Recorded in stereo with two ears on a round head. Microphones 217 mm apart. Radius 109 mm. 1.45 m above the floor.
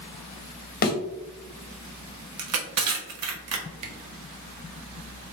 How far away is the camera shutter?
About 0.9 m.